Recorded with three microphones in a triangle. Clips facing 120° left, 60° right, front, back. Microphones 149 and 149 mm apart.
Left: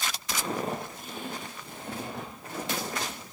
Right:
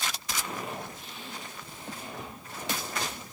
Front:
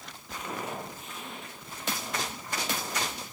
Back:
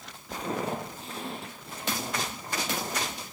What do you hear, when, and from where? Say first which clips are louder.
0.3 s footsteps: left 7 dB, back 5 dB; 150° left, 1.7 m; by 3.2 s 120° left, 4 m